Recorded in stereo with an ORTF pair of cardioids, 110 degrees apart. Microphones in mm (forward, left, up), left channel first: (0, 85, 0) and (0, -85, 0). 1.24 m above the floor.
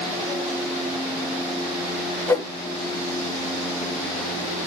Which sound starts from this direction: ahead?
A whoosh, at 2.3 s.